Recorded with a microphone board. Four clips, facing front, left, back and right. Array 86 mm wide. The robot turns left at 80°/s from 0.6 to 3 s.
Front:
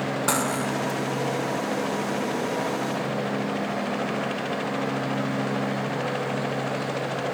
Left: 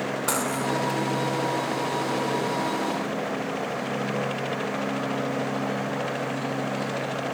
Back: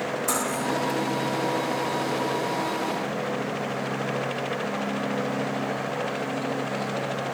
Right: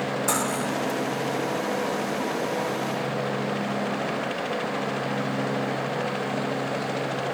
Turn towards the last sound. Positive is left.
turn(degrees=-165)